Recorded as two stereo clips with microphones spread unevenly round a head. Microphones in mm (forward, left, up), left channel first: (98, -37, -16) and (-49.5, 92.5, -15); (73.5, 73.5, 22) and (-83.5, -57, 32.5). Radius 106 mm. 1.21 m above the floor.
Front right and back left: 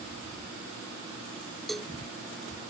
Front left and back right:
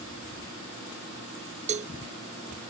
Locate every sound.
1.7 s a cowbell: 130° right